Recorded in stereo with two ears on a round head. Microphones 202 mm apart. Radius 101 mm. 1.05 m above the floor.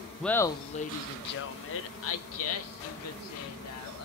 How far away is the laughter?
About 0.6 m.